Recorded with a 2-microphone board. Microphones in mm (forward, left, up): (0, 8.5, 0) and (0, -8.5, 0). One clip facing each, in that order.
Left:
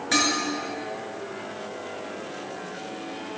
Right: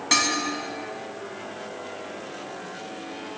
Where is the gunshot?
I don't hear a gunshot.